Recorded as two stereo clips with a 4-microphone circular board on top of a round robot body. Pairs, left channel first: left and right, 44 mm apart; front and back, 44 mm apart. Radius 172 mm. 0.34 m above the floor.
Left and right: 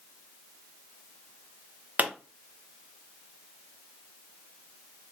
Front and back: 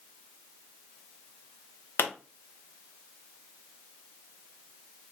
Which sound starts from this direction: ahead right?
A pop, at 2.0 s.